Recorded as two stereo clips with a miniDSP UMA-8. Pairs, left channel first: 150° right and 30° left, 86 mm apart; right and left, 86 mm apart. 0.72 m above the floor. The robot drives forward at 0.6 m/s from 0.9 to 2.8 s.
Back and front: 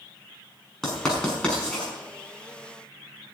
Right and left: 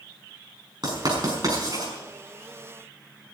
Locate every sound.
0.8 s writing: 125° left, 6 m; by 1.9 s 130° left, 6 m